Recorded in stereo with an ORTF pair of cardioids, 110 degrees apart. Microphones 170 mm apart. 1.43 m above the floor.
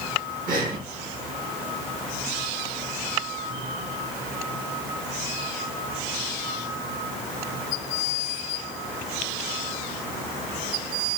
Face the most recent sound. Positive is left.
turn(degrees=-55)